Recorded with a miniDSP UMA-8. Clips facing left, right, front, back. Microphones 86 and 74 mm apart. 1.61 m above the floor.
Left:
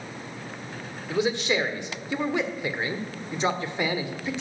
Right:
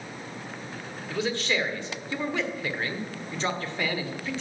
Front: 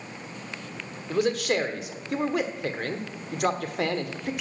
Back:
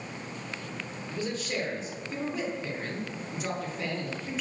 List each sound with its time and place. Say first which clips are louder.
1.1 s a man speaking: left 3 dB, front 9 dB; 15° left, 1.2 m